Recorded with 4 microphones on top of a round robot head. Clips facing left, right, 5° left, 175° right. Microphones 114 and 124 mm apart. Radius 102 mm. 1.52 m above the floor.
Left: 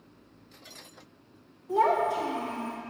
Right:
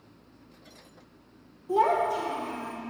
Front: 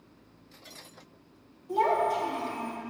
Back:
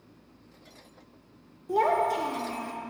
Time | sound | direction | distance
1.7 | a child speaking | 150° right | 0.6 m